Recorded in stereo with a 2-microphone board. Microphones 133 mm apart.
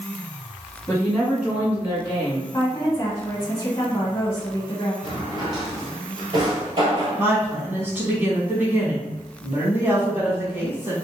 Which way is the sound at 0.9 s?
10° left (ahead or behind).